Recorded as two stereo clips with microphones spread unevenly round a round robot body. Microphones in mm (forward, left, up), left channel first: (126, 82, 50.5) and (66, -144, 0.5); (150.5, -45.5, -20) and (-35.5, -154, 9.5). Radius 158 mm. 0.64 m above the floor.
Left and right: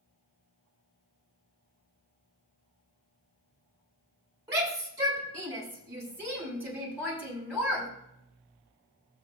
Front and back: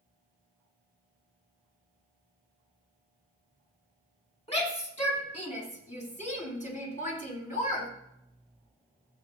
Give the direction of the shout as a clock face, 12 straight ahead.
1 o'clock.